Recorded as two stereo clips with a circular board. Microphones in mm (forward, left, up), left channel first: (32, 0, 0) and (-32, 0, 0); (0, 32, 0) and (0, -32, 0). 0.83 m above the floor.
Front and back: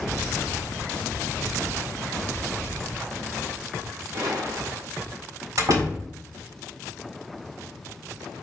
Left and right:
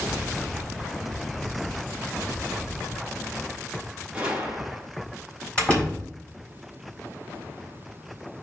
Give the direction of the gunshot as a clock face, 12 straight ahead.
5 o'clock.